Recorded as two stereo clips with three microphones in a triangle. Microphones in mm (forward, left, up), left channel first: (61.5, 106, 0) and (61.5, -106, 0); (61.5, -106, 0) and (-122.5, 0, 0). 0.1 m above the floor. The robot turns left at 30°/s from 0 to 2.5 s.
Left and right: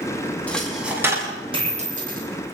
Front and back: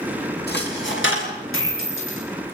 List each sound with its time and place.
0.5 s a dropped coin: 5° left, 7 m; by 2.2 s 45° right, 7 m